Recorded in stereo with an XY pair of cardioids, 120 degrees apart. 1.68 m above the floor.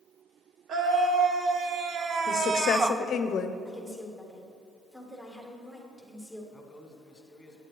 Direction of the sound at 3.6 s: 10° right.